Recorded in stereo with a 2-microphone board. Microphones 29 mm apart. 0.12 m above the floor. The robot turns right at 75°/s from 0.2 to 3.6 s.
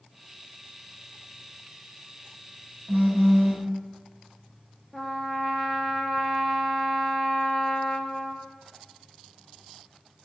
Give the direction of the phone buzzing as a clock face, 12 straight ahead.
4 o'clock.